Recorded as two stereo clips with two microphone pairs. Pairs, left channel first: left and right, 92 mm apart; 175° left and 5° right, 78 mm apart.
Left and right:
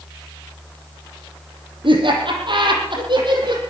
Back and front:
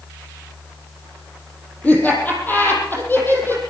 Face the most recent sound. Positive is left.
turn(degrees=-125)